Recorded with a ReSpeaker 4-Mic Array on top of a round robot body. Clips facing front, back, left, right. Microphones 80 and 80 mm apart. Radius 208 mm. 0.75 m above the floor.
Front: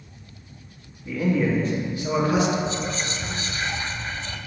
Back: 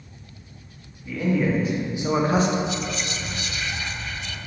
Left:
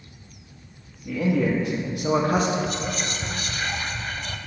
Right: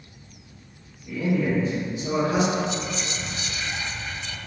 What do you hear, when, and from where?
1.1 s a man speaking: 85° left, 1.5 m; by 2.6 s 140° left, 1.0 m
2.7 s whispering: 55° left, 0.6 m